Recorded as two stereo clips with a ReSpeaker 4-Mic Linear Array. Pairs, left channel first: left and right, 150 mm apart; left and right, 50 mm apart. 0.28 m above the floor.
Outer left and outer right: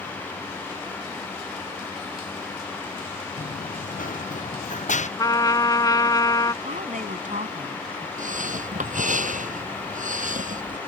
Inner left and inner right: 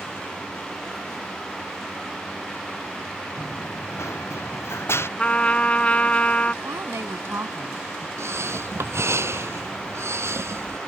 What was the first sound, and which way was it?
Running footsteps, 70° left (ahead or behind).